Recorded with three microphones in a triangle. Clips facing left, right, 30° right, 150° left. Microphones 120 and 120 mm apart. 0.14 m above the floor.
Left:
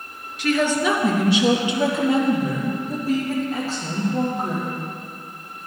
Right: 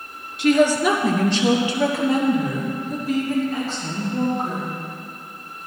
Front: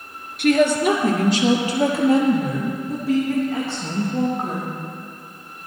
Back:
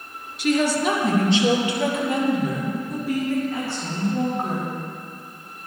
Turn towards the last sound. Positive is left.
turn(degrees=45)